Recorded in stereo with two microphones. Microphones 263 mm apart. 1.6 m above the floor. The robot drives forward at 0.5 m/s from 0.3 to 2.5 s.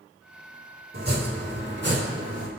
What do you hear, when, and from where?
0.9 s chopping: 35° right (ahead or behind), 2.5 m; by 2.5 s 50° right (ahead or behind), 2 m